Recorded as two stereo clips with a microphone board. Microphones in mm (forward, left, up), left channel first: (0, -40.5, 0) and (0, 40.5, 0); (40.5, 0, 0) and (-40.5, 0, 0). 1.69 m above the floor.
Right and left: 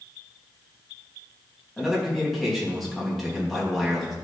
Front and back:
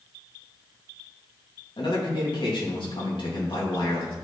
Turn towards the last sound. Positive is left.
turn(degrees=0)